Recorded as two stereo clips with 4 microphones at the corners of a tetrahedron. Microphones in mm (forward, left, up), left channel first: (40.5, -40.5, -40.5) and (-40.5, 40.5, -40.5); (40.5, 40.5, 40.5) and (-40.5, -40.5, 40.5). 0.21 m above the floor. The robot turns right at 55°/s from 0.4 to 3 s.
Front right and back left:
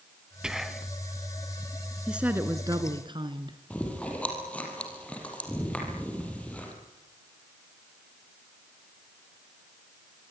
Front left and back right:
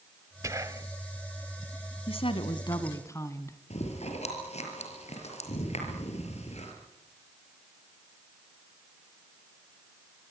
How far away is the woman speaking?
About 2.0 m.